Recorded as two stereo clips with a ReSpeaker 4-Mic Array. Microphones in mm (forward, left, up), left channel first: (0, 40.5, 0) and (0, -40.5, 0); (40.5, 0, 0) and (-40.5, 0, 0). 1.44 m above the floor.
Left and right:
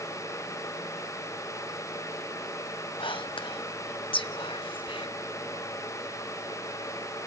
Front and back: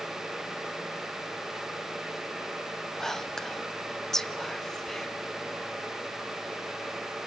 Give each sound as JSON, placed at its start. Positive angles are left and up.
{"t": 3.0, "sound": "whispering", "azimuth_deg": 85, "distance_m": 0.9}